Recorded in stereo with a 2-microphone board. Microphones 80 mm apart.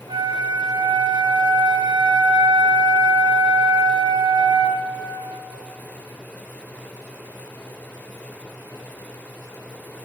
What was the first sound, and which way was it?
A flute, 70° right (ahead or behind).